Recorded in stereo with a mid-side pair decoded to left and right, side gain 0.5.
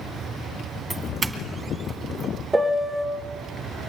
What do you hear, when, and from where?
0.9 s a doorbell: 20° right, 2.5 m
2.5 s a piano: 15° right, 1.5 m